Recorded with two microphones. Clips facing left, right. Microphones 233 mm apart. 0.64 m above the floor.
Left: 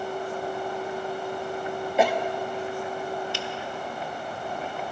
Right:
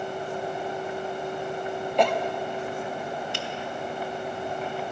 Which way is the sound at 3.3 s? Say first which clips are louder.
Left 1 dB; 55° right (ahead or behind).